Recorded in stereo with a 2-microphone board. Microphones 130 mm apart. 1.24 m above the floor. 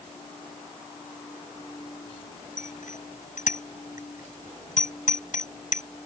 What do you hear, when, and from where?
2.6 s a bicycle bell: 85° left